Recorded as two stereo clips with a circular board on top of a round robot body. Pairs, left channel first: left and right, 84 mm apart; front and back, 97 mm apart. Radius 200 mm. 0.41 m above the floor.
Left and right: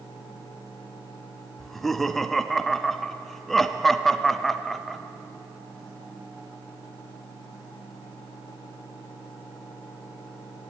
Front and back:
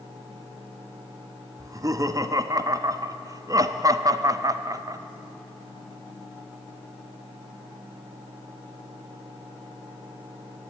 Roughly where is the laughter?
Behind.